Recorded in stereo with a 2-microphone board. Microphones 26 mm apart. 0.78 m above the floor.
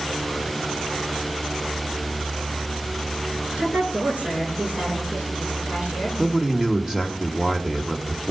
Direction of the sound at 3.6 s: 55° right (ahead or behind).